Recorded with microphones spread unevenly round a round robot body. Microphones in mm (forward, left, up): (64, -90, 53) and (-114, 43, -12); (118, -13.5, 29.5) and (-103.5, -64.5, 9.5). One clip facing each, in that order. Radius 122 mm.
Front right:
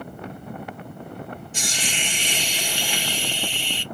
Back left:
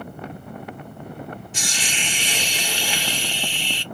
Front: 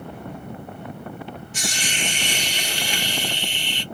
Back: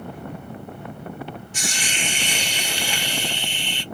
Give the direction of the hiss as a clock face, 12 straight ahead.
6 o'clock.